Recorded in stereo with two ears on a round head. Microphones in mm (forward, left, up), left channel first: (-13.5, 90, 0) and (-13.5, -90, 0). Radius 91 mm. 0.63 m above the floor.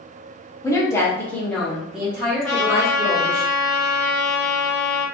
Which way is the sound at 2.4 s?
5° left (ahead or behind).